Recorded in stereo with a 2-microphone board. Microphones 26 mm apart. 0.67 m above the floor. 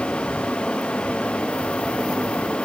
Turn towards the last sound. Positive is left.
No sound to turn to.